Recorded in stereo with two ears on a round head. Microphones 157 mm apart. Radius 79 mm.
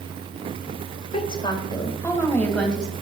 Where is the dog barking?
I don't hear a dog barking.